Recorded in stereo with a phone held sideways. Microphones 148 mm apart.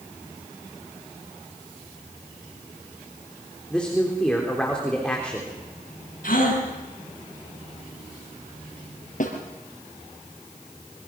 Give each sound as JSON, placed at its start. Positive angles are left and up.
{"t": 3.7, "sound": "a man speaking", "side_deg": 5, "distance_m": 3.5}
{"t": 6.2, "sound": "a gasp", "side_deg": 65, "distance_m": 7.5}
{"t": 9.2, "sound": "a snare drum", "side_deg": 60, "distance_m": 5.0}